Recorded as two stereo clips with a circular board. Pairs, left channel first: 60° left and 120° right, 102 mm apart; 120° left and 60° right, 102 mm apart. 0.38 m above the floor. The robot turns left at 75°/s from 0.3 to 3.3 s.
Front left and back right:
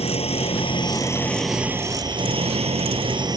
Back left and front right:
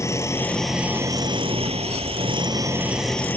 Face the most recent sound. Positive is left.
turn(degrees=-165)